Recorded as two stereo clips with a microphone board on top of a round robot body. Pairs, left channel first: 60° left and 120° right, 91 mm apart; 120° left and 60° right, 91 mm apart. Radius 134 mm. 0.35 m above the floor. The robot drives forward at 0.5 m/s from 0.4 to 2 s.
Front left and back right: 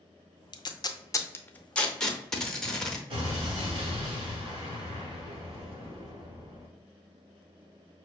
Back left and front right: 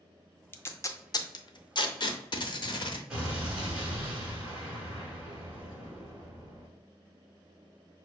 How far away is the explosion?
About 1.4 m.